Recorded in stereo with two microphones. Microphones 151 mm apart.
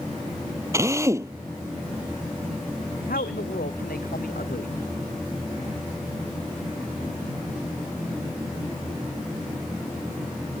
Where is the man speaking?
80° left.